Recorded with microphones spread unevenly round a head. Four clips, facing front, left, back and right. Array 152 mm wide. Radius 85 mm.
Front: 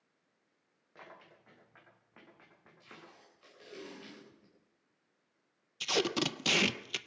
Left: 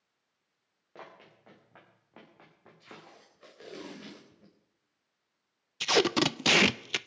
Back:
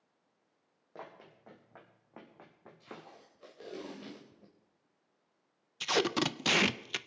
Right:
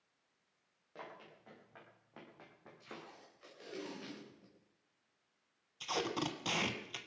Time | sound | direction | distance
0.9 | running footsteps | 160° left | 4.5 m
2.8 | tape being pulled | 150° left | 4 m
5.8 | tape being pulled | 75° left | 0.6 m